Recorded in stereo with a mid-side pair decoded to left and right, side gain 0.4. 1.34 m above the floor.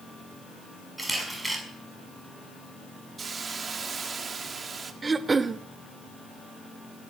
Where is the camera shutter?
15° right, 6 m.